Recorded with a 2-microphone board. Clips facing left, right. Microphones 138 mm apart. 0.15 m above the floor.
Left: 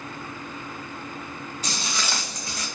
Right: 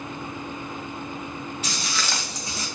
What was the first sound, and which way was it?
Footsteps, 35° left (ahead or behind).